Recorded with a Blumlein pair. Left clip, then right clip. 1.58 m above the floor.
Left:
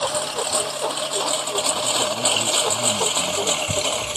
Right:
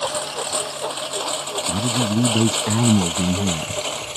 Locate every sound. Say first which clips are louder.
0.0 s a lawn mower: left 1 dB; 5° left; by 4.2 s 15° left
1.7 s a man speaking: right 1 dB; 50° right